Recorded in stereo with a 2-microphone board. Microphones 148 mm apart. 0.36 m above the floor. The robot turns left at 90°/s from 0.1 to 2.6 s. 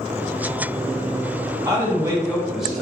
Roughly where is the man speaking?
Right.